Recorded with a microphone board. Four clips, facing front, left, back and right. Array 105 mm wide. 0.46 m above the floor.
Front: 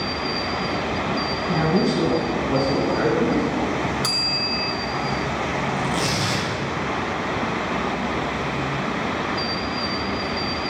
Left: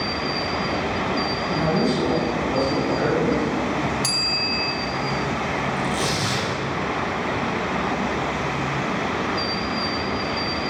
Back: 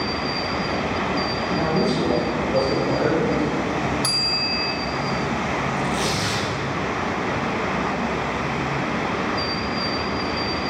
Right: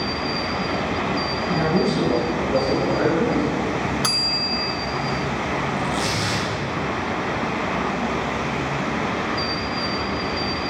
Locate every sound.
1.5 s a man speaking: 5° right, 5.5 m; by 3.6 s 30° right, 5.5 m
4.0 s a bell: 85° right, 0.9 m
5.8 s tearing paper: 15° right, 5.5 m